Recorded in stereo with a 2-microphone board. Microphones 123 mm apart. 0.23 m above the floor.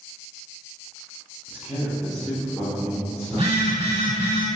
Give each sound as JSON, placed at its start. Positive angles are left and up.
{"t": 1.5, "sound": "a man speaking", "side_deg": -15, "distance_m": 1.1}
{"t": 3.3, "sound": "a phone buzzing", "side_deg": -60, "distance_m": 0.9}